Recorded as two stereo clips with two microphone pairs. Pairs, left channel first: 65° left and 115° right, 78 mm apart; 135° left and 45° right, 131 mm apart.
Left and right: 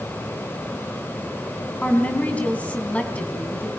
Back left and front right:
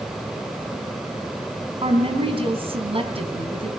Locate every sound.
1.8 s a woman speaking: 5° right, 3.5 m